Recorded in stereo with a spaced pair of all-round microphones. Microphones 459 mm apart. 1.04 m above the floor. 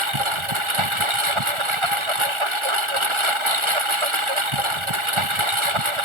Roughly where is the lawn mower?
Right.